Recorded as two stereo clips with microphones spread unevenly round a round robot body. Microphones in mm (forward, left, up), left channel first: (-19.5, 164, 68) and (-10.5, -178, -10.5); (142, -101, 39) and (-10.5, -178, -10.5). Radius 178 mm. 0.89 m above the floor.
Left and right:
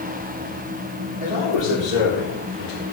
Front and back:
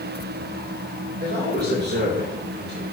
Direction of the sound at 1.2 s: 135° right.